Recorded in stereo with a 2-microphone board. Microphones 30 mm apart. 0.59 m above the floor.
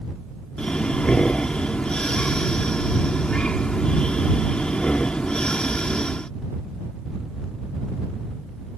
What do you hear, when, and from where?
0.6 s breathing: 35° left (ahead or behind)